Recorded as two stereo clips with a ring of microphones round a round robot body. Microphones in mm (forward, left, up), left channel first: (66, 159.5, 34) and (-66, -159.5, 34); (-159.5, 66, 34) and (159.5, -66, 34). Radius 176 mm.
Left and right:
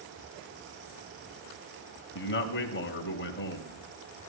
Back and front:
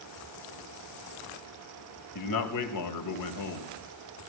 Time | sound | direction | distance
2.1 | a man speaking | 125° left | 2.5 m